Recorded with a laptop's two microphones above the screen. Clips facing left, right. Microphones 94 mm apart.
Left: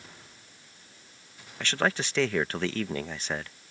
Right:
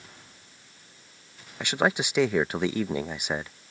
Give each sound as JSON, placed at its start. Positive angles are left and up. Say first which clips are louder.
{"t": 1.6, "sound": "a man speaking", "louder": "right 3 dB", "side_deg": -15}